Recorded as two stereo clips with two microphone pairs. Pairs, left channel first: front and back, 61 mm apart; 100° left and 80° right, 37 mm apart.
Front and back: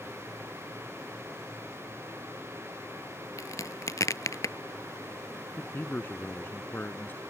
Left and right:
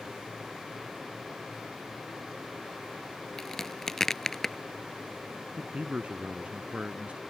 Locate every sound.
3.4 s a crack: 25° left
5.6 s a man speaking: 40° right